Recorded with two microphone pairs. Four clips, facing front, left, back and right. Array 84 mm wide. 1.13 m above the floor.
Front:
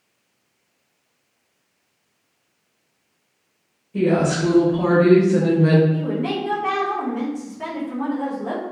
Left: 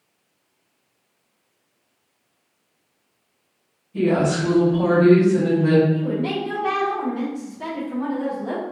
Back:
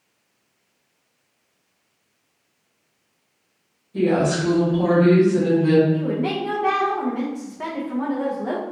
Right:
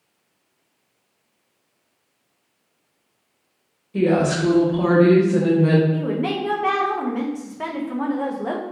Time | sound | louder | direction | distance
3.9 | a woman speaking | right 1 dB, front 1 dB | 85° right | 1.8 m
5.9 | a woman speaking | even, back 1 dB | 115° right | 0.7 m